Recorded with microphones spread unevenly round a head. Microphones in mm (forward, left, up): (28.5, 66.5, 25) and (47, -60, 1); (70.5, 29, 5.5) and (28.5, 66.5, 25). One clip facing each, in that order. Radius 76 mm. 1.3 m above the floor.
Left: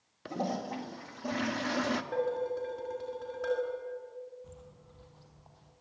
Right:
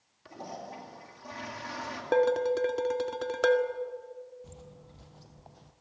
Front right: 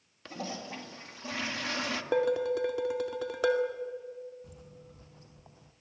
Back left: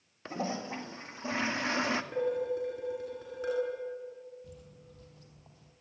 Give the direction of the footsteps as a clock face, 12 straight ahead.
4 o'clock.